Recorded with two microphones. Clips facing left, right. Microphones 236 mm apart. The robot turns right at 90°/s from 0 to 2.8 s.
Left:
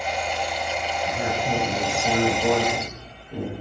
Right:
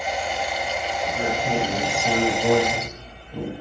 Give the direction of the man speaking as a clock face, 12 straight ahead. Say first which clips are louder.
Right 1 dB; 3 o'clock.